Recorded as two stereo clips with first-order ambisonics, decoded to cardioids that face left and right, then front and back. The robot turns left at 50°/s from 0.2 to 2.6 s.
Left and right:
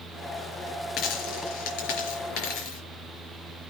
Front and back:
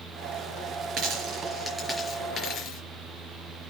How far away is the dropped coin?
About 4.5 m.